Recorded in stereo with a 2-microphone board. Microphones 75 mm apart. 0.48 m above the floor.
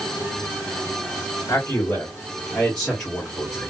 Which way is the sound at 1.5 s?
40° left (ahead or behind).